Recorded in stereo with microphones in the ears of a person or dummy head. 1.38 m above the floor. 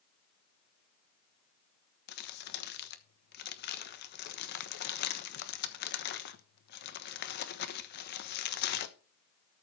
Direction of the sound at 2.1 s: 55° left (ahead or behind).